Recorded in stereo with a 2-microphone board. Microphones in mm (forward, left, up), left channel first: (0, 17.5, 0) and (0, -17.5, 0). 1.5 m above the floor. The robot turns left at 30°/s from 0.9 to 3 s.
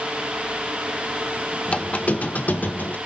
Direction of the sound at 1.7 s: 135° left.